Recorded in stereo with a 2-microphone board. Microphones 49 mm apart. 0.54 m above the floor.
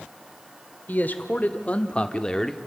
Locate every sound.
0.9 s a man speaking: 40° left (ahead or behind), 1.7 m; by 2.6 s 5° left (ahead or behind), 1.0 m